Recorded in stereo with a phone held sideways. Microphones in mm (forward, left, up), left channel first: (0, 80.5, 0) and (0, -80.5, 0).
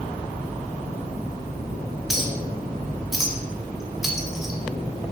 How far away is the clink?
About 1.2 m.